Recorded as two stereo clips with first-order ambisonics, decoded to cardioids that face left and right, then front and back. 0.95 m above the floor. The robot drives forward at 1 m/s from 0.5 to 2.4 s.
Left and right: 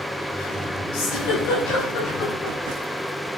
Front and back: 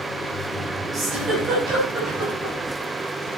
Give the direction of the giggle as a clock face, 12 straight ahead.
8 o'clock.